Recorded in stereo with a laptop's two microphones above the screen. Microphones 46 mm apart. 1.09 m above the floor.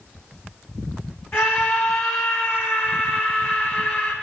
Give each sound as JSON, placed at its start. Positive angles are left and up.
{"t": 1.3, "sound": "a scream", "side_deg": 55, "distance_m": 8.0}